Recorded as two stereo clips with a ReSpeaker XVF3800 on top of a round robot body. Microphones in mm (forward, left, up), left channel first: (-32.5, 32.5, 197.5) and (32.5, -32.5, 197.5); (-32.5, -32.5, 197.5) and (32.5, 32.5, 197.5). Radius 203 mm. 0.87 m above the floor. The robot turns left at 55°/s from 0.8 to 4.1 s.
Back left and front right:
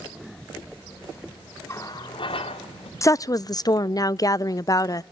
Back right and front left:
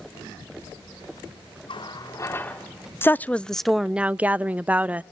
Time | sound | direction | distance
1.7 | a running tap | 165° right | 1.7 m
3.0 | a woman speaking | 170° left | 0.5 m